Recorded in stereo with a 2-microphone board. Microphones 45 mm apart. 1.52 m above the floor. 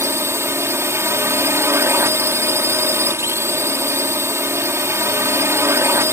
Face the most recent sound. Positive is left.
turn(degrees=-70)  # may be behind; listen again after turning